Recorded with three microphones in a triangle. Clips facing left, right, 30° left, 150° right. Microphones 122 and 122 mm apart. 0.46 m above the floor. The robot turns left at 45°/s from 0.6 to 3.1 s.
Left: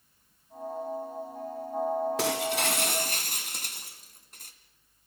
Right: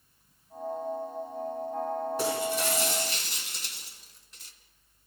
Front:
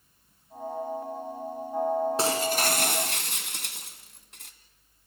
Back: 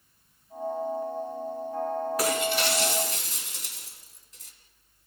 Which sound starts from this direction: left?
Breaking glass, at 2.2 s.